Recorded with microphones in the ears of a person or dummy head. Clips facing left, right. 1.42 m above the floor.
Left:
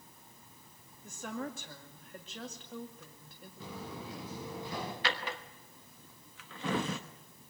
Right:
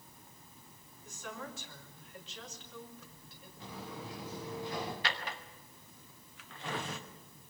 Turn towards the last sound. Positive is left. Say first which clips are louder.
# left 3 dB
turn(degrees=60)  # may be behind; listen again after turning